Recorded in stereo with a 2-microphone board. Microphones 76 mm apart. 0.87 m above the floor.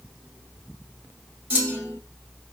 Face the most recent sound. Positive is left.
turn(degrees=-25)  # may be behind; listen again after turning